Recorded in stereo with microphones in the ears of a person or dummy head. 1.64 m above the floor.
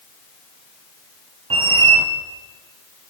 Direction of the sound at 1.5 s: 25° right (ahead or behind).